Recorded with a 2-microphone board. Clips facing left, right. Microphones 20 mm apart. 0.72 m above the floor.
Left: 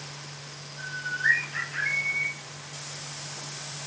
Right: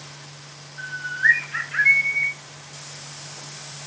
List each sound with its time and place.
0.8 s a bird: 50° right (ahead or behind), 0.7 m